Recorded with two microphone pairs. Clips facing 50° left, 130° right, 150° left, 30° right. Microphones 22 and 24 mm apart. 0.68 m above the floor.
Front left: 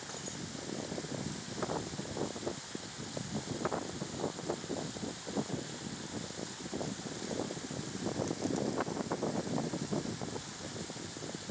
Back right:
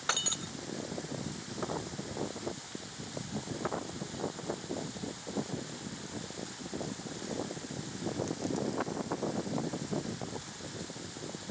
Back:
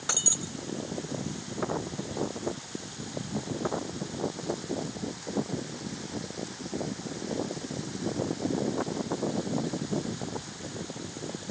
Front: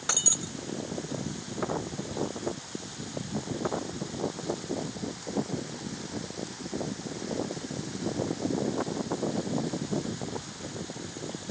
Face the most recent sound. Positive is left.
turn(degrees=-115)